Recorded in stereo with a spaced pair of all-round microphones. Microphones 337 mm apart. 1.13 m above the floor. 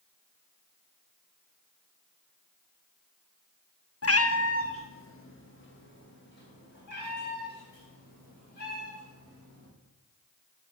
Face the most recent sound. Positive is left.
turn(degrees=25)  # may be behind; listen again after turning